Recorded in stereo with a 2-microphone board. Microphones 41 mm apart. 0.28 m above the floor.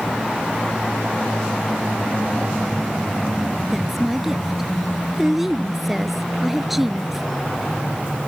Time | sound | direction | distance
3.7 | a woman speaking | 5° right (ahead or behind) | ?